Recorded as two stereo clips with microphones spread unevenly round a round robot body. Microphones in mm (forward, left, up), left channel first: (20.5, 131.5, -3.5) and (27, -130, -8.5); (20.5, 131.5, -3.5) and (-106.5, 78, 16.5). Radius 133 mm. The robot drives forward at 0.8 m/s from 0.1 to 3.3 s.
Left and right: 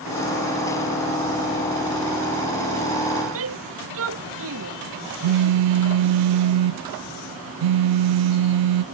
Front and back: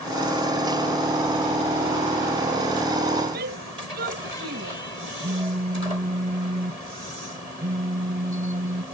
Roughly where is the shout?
Behind right.